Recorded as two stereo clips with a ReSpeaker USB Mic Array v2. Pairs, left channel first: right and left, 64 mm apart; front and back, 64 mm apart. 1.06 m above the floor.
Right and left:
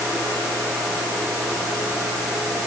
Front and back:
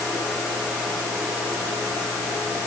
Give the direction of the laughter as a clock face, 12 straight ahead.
No laughter in this recording.